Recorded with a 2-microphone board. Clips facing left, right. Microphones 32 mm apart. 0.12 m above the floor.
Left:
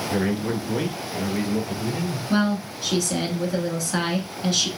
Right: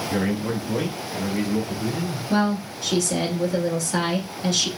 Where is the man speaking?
5° left (ahead or behind), 1.5 m; by 2.2 s 40° left (ahead or behind), 2 m.